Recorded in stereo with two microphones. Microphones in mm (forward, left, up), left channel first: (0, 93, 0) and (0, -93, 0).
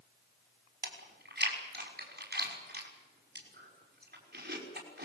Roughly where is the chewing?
Right.